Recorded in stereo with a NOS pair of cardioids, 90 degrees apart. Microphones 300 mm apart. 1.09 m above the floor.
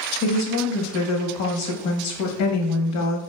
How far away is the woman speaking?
About 0.8 m.